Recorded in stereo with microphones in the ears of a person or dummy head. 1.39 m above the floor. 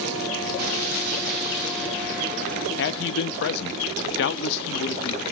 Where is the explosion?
55° right (ahead or behind), 3 m.